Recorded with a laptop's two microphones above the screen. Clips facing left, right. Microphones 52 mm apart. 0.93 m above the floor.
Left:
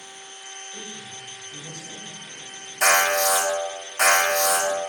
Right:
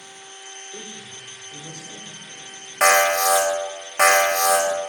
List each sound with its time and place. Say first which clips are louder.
0.7 s a man speaking: right 1 dB; 80° right, 3 m
2.8 s an alarm: right 3 dB; 65° right (ahead or behind), 3 m